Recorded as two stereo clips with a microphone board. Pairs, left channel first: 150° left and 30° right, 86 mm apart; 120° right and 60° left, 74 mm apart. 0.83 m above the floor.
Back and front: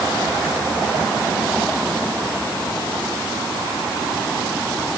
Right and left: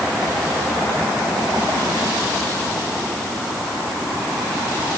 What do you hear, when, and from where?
Only background noise.